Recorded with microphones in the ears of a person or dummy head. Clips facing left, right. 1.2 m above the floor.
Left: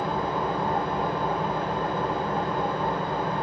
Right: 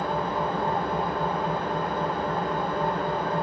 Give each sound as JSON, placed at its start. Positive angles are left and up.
{"t": 0.0, "sound": "an engine running", "side_deg": 20, "distance_m": 1.3}